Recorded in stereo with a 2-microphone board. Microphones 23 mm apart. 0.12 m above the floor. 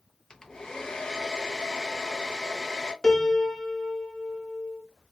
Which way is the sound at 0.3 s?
25° left (ahead or behind).